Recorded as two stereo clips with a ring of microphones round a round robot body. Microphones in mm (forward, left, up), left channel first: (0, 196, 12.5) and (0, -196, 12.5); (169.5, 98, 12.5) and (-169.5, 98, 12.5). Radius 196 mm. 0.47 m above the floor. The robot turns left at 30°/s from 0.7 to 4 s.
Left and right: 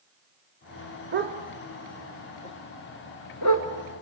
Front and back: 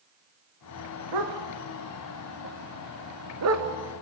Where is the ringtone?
I don't hear a ringtone.